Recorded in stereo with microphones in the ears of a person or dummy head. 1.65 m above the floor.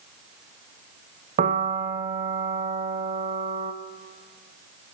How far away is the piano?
About 1.2 m.